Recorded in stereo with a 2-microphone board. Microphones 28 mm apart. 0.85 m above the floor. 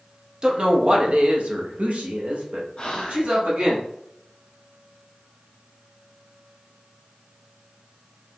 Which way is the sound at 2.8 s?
40° left (ahead or behind).